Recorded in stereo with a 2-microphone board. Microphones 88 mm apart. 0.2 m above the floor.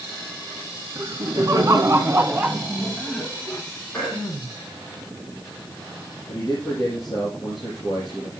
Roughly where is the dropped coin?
No dropped coin in this recording.